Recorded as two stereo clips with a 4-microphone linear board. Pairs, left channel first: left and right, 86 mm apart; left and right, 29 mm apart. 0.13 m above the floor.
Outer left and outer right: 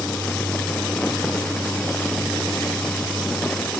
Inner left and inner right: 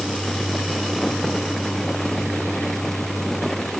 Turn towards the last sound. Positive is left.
No sound to turn to.